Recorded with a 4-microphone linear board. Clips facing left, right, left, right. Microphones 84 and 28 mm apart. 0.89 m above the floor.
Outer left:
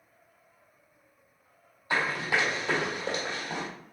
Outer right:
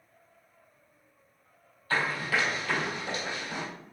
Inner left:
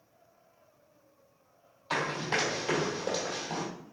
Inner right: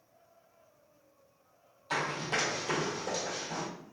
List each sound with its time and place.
1.9 s running footsteps: 15° left (ahead or behind), 2 m; by 3.7 s 45° left (ahead or behind), 2 m